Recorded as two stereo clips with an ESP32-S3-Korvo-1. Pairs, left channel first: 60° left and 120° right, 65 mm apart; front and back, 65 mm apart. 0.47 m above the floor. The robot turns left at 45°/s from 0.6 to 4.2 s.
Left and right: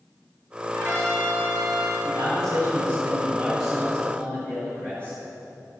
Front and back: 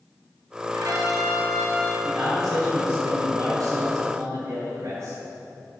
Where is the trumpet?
155° right, 5 m; by 1.9 s 150° left, 5 m.